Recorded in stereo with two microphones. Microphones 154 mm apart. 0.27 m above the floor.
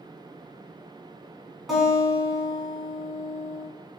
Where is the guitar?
Centre (ahead or behind), 1.2 m.